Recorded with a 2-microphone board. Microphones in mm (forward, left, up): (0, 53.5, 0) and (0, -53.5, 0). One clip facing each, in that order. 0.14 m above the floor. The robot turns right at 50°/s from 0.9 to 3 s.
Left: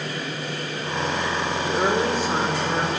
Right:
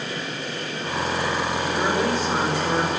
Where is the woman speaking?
135° left, 8.5 m; by 2.9 s 160° right, 8.5 m.